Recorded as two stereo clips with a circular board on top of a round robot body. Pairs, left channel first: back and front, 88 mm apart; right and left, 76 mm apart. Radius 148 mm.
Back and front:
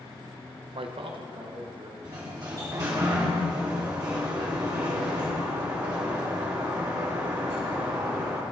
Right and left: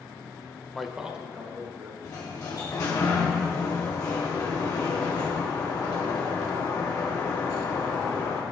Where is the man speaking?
5° right, 0.6 m; by 1.9 s 20° left, 2 m.